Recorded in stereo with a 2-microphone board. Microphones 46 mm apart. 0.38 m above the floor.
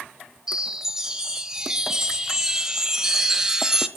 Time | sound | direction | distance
0.5 | a chime | 15° right (ahead or behind) | 1.0 m